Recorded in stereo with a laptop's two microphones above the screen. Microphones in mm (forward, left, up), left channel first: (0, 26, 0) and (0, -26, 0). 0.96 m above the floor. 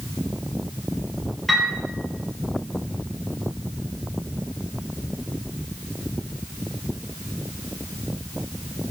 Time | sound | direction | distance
1.5 | a piano | centre (ahead or behind) | 9 m